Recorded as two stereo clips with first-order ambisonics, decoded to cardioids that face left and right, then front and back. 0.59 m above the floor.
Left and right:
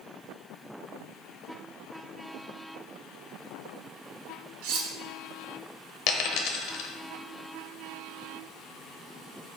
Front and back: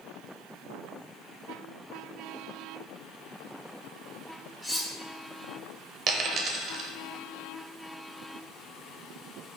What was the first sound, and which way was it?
Cutlery clinking, 90° right.